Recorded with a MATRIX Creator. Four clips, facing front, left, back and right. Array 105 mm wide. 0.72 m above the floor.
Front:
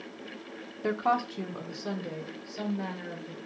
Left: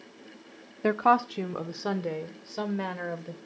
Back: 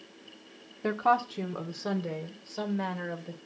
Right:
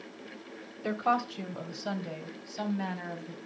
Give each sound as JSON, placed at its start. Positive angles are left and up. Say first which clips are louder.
{"t": 0.8, "sound": "a woman speaking", "louder": "left 6 dB, back 2 dB", "azimuth_deg": 90, "distance_m": 1.3}